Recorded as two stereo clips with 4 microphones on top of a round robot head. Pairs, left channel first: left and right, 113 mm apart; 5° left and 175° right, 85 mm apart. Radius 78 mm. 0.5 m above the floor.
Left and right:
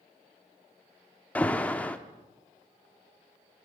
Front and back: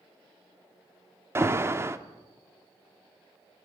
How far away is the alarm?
About 1.4 m.